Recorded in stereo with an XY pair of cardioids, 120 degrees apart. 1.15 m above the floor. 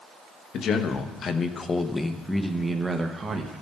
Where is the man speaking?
60° left, 1.1 m; by 3.5 s 35° right, 1.2 m.